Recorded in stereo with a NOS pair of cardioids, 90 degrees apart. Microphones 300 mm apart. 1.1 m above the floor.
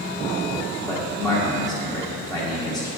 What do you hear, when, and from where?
0.9 s a man speaking: straight ahead, 1.4 m